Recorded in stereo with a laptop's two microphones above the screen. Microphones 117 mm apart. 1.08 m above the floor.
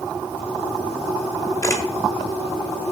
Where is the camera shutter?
25° left (ahead or behind), 1.2 m.